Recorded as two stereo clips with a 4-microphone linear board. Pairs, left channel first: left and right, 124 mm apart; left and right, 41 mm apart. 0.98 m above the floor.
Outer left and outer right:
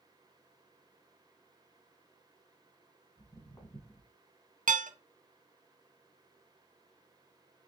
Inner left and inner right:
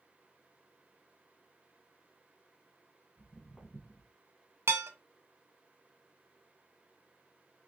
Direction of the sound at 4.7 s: 85° right.